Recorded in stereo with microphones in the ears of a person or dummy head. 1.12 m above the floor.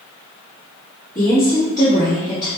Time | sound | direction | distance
1.1 | a woman speaking | 20° left (ahead or behind) | 2.0 m